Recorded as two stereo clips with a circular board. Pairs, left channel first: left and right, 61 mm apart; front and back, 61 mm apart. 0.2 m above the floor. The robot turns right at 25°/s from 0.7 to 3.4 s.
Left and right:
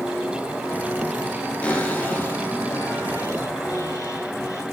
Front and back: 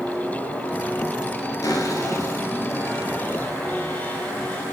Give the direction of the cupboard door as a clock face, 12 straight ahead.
11 o'clock.